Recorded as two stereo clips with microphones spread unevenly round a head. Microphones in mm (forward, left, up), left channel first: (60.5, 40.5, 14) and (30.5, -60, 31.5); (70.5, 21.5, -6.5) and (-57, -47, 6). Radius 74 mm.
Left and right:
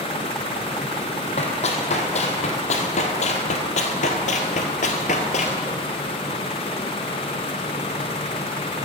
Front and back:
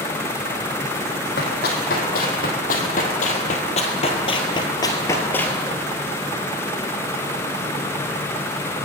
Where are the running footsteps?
50° left, 3.5 m; by 5.6 s 115° left, 1.7 m.